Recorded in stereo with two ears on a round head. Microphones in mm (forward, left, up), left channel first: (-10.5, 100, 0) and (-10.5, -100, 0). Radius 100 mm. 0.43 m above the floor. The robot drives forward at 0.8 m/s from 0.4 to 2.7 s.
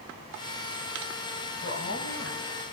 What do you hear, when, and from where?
1.6 s a woman speaking: 50° left (ahead or behind), 2 m; by 2.4 s 60° left (ahead or behind), 2.0 m